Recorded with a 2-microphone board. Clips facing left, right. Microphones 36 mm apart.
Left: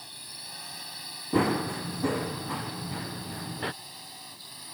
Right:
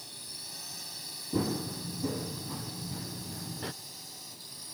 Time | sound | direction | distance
0.0 | a drone | 30° left (ahead or behind) | ?
1.3 | running footsteps | 75° left (ahead or behind) | ?